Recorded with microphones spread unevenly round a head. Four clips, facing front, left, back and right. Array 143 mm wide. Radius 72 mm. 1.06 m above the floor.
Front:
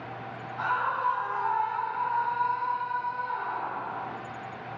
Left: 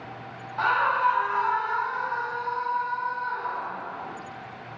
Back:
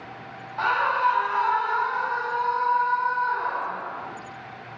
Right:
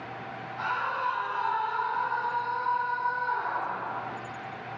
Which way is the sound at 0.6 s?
140° left.